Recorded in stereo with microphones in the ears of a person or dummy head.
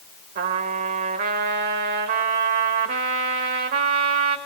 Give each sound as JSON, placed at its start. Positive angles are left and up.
{"t": 0.3, "sound": "a trumpet", "side_deg": -45, "distance_m": 1.6}